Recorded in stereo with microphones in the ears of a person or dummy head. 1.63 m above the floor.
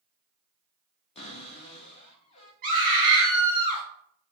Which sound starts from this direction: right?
A scream, at 2.6 s.